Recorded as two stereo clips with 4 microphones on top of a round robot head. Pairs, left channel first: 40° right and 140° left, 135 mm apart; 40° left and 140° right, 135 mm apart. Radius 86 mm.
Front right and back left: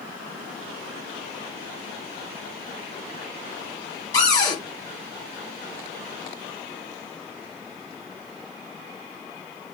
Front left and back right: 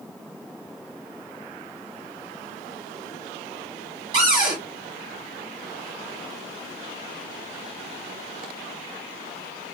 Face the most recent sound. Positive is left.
turn(degrees=-95)